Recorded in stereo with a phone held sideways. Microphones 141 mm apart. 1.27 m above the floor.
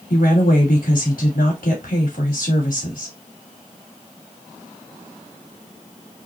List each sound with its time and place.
0.1 s a woman speaking: 85° left, 2.5 m